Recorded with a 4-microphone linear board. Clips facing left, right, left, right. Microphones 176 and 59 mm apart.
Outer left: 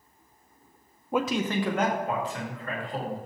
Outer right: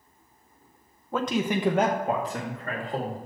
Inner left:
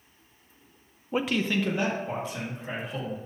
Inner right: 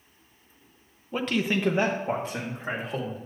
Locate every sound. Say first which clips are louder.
1.1 s a man speaking: even, even; 15° left (ahead or behind), 0.6 m; by 3.2 s 45° right (ahead or behind), 2.5 m